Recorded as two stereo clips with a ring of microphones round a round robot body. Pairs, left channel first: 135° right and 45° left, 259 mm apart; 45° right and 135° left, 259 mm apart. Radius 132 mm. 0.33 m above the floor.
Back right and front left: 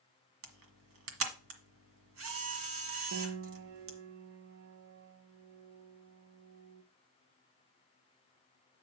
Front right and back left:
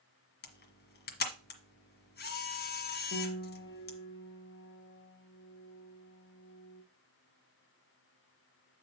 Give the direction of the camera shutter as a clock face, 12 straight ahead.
12 o'clock.